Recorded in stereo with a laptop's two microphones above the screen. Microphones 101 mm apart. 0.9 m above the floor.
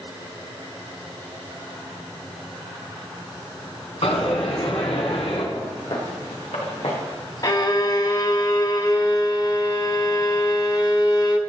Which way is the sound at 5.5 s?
65° left (ahead or behind).